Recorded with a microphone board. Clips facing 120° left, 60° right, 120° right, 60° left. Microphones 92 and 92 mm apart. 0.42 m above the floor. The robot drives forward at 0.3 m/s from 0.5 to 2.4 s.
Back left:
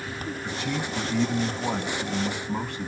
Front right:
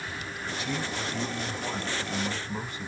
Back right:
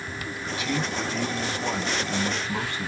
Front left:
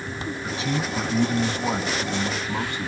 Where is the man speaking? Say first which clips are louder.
Back left 1 dB, front left 1 dB; 115° left, 2.5 m; by 2.9 s 130° left, 2.5 m.